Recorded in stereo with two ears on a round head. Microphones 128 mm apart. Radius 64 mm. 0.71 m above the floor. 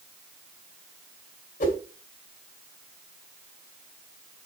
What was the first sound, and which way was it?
A whoosh, 50° left (ahead or behind).